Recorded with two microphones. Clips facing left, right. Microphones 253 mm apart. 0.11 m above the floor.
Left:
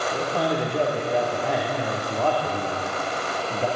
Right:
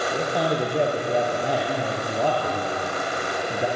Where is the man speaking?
15° right (ahead or behind), 3.5 m.